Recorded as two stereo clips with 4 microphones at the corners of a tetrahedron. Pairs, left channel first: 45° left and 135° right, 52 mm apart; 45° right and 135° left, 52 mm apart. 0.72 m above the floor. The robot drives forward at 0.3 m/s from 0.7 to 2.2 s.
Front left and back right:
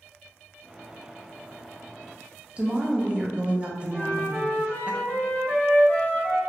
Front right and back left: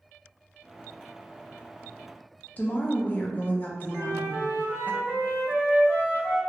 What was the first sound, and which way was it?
A woman speaking, 80° right.